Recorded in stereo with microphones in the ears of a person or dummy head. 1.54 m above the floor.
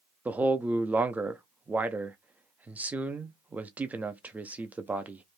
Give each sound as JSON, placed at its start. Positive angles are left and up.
{"t": 0.2, "sound": "a man speaking", "side_deg": -5, "distance_m": 0.5}